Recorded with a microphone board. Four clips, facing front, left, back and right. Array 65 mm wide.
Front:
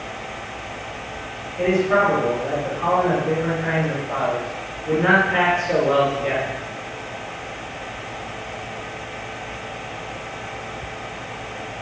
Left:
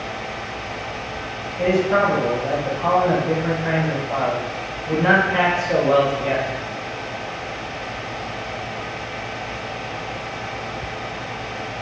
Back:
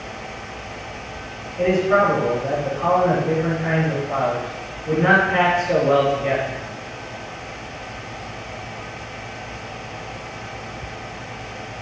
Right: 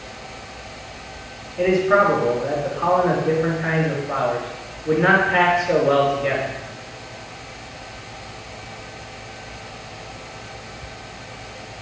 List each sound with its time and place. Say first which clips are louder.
1.6 s a man speaking: right 2 dB, back 1 dB; 85° right, 5 m